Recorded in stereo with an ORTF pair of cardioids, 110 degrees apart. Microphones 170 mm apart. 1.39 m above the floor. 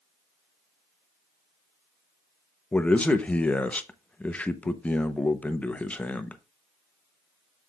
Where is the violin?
No violin in this recording.